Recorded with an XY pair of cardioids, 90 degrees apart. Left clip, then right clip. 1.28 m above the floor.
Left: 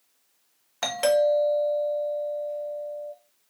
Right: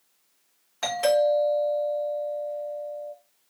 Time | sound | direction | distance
0.8 | a doorbell | 50° left | 1.8 m